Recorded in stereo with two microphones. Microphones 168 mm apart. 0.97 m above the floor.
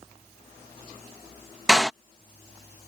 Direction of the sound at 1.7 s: 5° right (ahead or behind).